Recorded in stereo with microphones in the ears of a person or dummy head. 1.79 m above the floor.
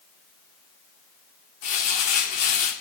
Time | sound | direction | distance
1.6 | crumpling | 35° left (ahead or behind) | 0.7 m